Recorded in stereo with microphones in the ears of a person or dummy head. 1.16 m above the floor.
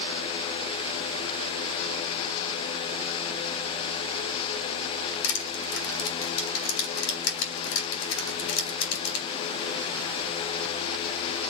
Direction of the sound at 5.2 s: 80° left.